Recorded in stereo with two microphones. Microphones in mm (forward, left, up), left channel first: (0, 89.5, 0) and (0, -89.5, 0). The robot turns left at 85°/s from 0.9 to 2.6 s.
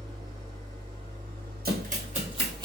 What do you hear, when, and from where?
0.0 s an engine running: 25° right, 1.2 m; by 2.7 s 170° right, 1.2 m
1.6 s running footsteps: 55° right (ahead or behind), 1.7 m; by 2.7 s 25° right (ahead or behind), 1.4 m